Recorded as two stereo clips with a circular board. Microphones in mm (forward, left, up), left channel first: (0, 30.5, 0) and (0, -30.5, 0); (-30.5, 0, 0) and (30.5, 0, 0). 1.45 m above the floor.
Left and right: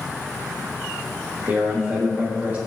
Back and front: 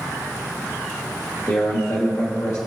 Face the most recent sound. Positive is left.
turn(degrees=-150)